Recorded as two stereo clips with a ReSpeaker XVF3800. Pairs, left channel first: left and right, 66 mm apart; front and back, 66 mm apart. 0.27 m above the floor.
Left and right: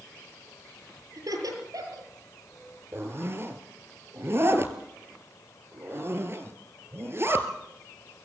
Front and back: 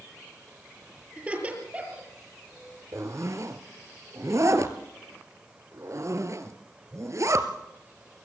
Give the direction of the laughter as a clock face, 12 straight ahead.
4 o'clock.